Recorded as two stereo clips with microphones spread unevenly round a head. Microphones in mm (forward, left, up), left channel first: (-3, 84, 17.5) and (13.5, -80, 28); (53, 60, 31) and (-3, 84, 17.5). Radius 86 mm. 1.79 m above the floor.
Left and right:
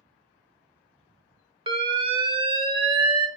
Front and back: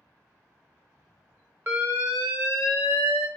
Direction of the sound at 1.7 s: 145° right.